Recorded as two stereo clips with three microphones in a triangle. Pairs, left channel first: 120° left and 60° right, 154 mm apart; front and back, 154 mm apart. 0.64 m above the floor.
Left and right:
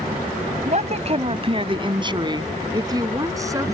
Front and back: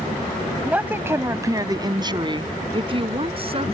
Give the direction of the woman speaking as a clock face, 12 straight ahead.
3 o'clock.